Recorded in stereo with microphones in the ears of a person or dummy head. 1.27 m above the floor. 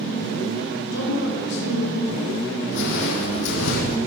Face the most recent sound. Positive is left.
turn(degrees=65)  # may be behind; listen again after turning